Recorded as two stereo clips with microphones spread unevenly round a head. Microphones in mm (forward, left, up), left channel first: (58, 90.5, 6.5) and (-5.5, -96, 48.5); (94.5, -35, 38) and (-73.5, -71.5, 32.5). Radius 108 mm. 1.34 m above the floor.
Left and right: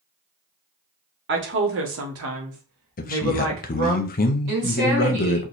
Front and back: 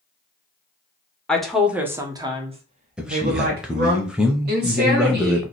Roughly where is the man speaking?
Left.